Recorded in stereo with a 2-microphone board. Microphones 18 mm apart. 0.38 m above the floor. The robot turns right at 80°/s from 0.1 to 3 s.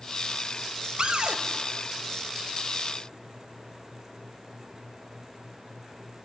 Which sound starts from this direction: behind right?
A cupboard door, at 1.0 s.